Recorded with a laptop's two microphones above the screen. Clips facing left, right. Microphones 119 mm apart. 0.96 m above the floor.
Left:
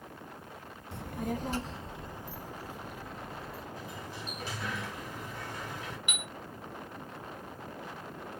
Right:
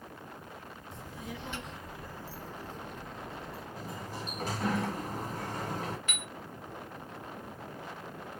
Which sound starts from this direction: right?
A sliding door, at 3.8 s.